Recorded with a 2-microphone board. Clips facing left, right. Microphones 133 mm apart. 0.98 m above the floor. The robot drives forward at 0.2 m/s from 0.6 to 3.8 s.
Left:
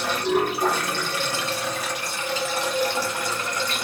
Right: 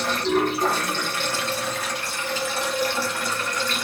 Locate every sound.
0.0 s running water: 15° left (ahead or behind), 1.3 m; by 3.8 s 20° left (ahead or behind), 0.9 m